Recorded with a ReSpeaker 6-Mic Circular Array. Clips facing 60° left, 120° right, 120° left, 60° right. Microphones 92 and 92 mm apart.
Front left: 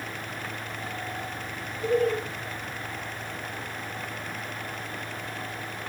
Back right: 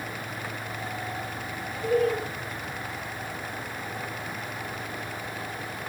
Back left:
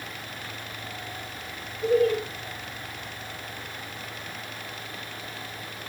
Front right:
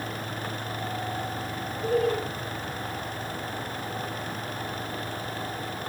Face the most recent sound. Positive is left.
turn(degrees=125)